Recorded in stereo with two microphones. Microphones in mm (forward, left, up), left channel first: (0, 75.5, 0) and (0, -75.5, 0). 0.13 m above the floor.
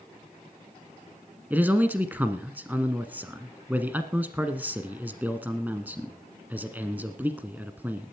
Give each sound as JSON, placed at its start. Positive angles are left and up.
{"t": 1.5, "sound": "a man speaking", "side_deg": -10, "distance_m": 1.1}